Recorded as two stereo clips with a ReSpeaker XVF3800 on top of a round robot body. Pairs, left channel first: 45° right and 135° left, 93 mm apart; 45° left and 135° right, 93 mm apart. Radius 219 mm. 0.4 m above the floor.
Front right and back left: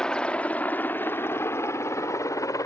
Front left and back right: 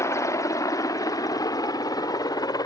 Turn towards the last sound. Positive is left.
turn(degrees=5)